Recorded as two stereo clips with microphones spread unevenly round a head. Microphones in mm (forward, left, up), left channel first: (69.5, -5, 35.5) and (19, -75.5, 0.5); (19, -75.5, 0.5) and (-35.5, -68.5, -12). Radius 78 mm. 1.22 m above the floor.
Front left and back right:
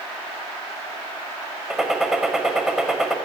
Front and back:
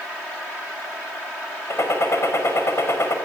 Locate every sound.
1.7 s a gunshot: 40° right, 5 m